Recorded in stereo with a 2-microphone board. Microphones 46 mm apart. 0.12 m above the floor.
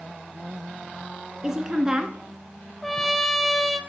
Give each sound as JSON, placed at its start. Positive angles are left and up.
{"t": 1.4, "sound": "a woman speaking", "side_deg": -15, "distance_m": 1.1}
{"t": 2.8, "sound": "a trumpet", "side_deg": 5, "distance_m": 0.8}